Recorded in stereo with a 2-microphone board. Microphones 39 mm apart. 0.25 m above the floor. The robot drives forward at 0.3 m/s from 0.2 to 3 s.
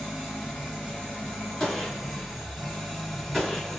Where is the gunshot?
15° left (ahead or behind), 1.6 m; by 3.8 s 10° left (ahead or behind), 1.8 m.